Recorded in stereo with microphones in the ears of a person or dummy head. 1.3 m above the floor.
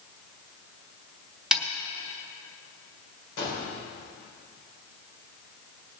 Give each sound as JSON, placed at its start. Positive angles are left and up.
{"t": 1.5, "sound": "a snare drum", "side_deg": -5, "distance_m": 1.2}
{"t": 3.4, "sound": "a gunshot", "side_deg": 80, "distance_m": 4.5}